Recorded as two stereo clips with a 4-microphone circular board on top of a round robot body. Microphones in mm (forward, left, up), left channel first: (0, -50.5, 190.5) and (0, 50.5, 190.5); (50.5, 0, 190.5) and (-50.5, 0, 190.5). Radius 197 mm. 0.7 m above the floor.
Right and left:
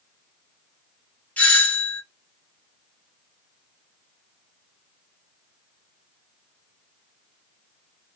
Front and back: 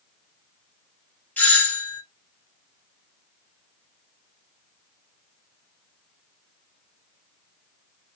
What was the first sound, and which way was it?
A doorbell, 40° right.